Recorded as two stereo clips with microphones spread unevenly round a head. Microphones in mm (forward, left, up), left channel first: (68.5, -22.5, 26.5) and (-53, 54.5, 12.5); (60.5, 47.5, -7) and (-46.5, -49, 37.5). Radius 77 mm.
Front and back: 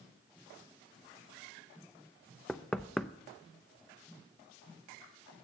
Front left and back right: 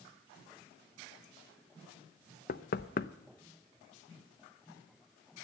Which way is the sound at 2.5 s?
40° left.